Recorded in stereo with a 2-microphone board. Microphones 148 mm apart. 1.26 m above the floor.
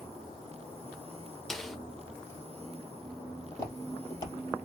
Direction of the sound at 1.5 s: Centre (ahead or behind).